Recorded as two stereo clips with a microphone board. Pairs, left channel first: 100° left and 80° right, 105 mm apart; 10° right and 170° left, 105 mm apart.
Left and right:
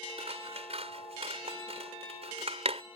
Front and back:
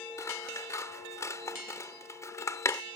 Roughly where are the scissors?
Right.